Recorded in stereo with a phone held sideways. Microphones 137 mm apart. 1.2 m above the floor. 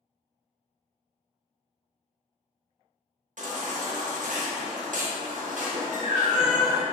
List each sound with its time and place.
3.4 s a baby crying: 75° right (ahead or behind), 0.7 m